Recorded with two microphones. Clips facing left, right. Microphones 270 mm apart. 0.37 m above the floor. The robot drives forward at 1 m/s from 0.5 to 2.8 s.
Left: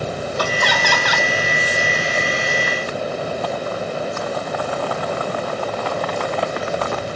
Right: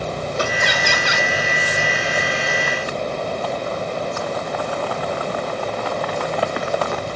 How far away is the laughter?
About 1.2 m.